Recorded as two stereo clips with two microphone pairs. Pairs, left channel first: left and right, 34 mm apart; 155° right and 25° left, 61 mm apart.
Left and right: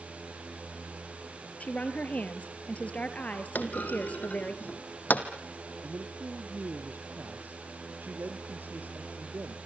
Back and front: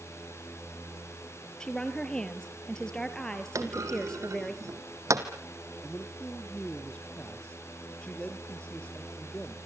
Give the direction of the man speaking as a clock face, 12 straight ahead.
3 o'clock.